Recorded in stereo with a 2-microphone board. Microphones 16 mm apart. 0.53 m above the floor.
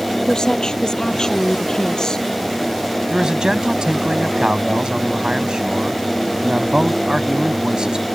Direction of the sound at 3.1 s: 60° right (ahead or behind).